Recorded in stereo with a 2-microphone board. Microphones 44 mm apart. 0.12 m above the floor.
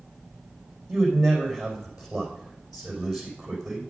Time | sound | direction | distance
0.9 | a man speaking | 5° right (ahead or behind) | 4.5 m